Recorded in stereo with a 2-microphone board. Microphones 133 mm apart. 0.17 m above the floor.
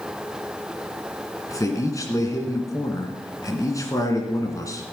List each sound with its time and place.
1.5 s a man speaking: 25° left (ahead or behind), 1.8 m